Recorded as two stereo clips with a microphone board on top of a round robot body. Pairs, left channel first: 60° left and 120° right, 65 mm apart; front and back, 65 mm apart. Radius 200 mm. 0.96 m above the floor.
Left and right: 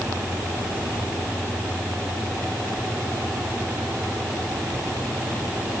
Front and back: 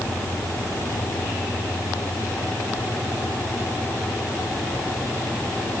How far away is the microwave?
I don't hear a microwave.